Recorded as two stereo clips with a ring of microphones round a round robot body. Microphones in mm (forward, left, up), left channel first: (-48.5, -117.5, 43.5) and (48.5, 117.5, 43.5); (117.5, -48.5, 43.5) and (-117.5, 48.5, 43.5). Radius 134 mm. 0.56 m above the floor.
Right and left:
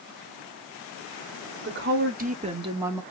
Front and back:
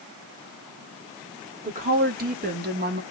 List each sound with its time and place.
1.6 s a woman speaking: 105° left, 2.0 m; by 3.0 s 150° left, 1.3 m